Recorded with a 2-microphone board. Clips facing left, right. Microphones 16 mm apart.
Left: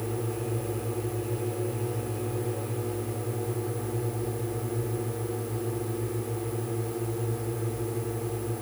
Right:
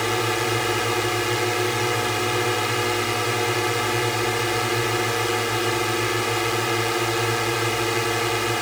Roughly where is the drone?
Right.